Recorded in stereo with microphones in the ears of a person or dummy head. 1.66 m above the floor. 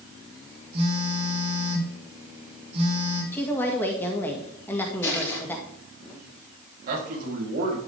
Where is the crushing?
10° left (ahead or behind), 4.5 m.